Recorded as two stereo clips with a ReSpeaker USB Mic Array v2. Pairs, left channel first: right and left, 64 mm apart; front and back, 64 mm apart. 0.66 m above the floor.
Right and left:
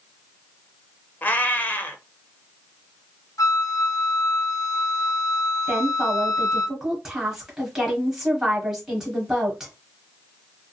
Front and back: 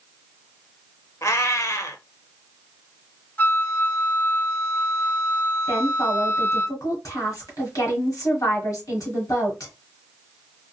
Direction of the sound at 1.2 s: 30° right.